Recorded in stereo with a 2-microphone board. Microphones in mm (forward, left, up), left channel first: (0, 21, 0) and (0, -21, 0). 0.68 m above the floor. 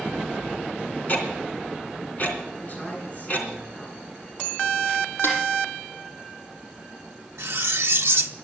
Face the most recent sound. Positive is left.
turn(degrees=-75)  # may be behind; listen again after turning